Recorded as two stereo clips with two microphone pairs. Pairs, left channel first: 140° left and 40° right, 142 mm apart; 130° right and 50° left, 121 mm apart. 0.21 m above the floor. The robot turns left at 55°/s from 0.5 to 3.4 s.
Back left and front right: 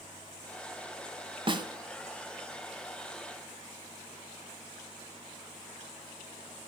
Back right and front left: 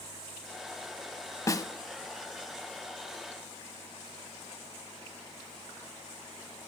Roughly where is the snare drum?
Right.